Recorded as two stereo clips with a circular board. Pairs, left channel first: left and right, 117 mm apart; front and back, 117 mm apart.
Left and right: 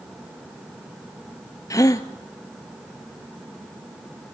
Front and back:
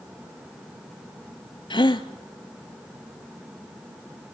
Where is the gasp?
35° left, 0.8 m.